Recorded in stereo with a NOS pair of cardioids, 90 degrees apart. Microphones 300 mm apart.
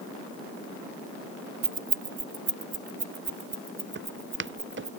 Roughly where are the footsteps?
Ahead right.